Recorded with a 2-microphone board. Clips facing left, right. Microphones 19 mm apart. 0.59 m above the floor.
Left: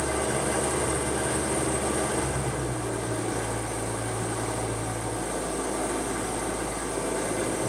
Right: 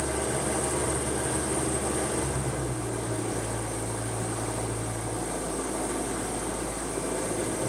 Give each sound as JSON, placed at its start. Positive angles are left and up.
{"t": 0.0, "sound": "an engine running", "side_deg": 30, "distance_m": 0.9}